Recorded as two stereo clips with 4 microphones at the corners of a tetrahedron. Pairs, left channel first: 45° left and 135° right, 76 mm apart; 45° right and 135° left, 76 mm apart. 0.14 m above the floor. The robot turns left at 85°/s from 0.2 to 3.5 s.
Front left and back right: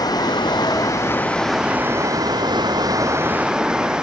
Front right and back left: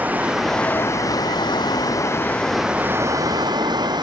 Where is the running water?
65° left; by 4.0 s 145° left.